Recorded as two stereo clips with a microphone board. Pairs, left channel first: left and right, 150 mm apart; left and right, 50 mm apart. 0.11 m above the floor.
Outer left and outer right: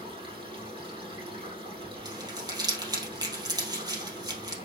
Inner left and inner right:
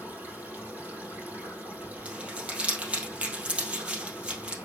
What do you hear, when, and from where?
0.0 s running water: 30° right (ahead or behind), 3 m
2.0 s crumpling: 25° right (ahead or behind), 2.5 m